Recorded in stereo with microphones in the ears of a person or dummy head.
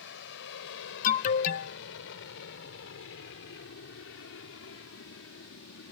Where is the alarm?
45° left (ahead or behind).